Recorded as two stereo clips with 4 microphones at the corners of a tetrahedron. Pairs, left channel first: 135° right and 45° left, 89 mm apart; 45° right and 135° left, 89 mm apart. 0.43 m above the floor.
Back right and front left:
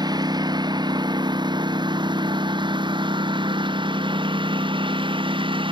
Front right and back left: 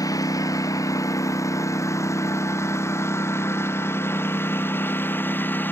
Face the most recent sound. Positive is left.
turn(degrees=25)